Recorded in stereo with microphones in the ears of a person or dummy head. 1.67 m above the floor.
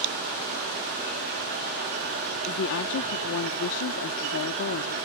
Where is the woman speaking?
65° left (ahead or behind); by 5.0 s 80° left.